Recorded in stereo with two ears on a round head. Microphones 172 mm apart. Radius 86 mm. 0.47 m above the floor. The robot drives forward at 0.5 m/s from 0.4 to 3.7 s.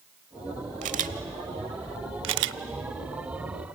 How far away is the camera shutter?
About 1.0 m.